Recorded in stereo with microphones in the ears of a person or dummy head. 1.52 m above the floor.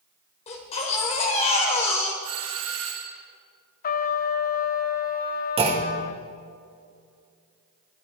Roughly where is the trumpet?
Left.